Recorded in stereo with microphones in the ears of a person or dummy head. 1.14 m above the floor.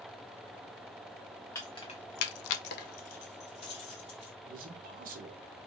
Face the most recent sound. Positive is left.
turn(degrees=-45)  # may be behind; listen again after turning